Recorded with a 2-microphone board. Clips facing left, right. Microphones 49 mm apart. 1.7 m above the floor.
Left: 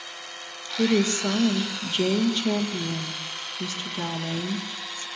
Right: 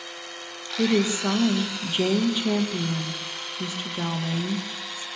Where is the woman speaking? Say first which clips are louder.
Even; 15° right (ahead or behind), 2.5 m.